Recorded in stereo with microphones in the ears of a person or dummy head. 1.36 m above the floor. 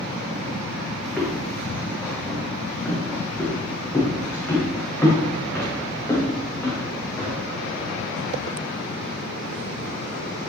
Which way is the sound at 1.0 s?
5° right (ahead or behind).